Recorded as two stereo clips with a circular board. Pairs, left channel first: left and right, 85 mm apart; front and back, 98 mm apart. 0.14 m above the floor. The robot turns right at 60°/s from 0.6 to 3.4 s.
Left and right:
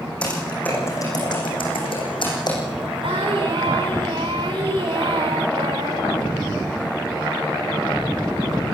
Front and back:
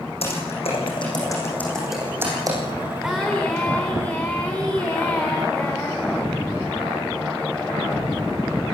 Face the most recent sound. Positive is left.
turn(degrees=-75)